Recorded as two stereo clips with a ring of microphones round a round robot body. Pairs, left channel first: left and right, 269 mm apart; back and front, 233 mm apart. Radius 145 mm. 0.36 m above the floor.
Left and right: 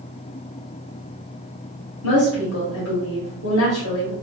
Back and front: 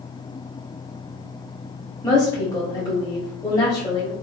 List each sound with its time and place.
2.0 s a woman speaking: 110° left, 1.5 m